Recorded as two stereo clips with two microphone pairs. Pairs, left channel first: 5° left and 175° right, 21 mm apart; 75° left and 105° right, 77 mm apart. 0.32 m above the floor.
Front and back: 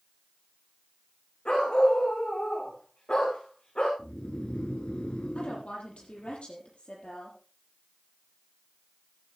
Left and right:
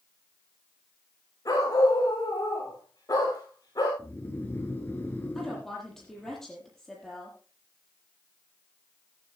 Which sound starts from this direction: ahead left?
A dog barking, at 1.4 s.